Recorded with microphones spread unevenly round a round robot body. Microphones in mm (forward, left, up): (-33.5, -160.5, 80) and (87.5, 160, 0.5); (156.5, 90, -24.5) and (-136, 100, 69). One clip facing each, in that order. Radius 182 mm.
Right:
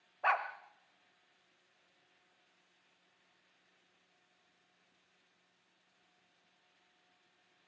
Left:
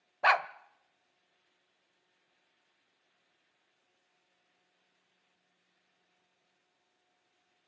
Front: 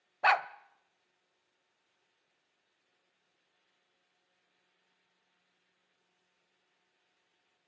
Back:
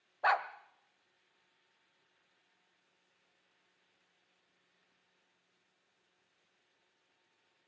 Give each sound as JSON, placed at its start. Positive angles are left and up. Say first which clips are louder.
{"t": 0.2, "sound": "a dog barking", "louder": "left 6 dB, front 3 dB", "azimuth_deg": 45, "distance_m": 1.1}